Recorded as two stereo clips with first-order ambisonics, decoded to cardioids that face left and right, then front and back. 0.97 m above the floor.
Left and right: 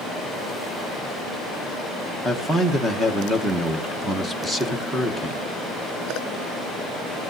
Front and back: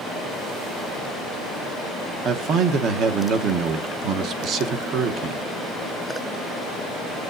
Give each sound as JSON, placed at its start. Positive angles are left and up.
{"t": 2.2, "sound": "a man speaking", "azimuth_deg": -170, "distance_m": 0.8}